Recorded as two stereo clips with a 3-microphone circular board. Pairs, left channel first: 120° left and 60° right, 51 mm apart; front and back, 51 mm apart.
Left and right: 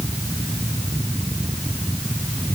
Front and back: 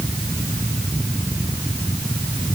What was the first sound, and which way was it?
Only background noise.